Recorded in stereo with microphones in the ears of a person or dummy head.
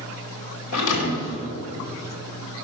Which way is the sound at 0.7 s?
75° left (ahead or behind).